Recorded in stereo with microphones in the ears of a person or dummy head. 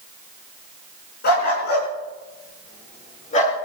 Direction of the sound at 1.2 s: 60° left (ahead or behind).